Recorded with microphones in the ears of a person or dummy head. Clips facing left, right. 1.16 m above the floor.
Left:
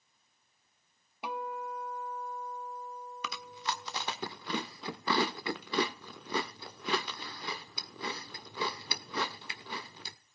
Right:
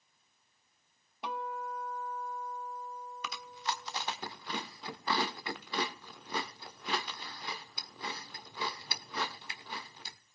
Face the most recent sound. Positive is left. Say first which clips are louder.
# left 1 dB
turn(degrees=55)  # may be behind; listen again after turning